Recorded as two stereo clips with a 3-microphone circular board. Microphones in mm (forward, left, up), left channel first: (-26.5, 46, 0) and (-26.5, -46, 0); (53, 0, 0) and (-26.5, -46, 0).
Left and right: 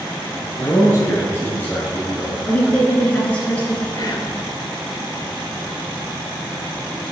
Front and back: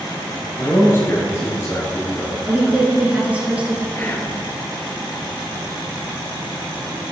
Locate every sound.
0.6 s a man speaking: 80° left, 2 m; by 2.4 s 5° left, 2 m
2.5 s a woman speaking: 150° left, 1.5 m
4.0 s whispering: 85° left, 1.6 m